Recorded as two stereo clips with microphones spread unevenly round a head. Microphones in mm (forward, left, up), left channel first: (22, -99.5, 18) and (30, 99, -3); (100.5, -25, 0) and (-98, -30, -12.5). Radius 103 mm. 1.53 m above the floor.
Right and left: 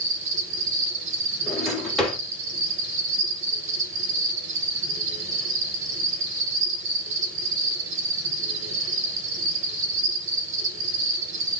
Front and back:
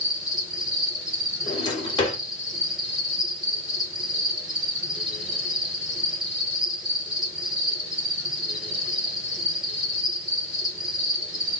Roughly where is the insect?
Left.